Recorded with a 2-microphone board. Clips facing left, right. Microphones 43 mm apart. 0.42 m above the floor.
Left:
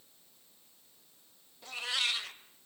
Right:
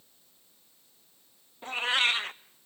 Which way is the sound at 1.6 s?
35° right (ahead or behind).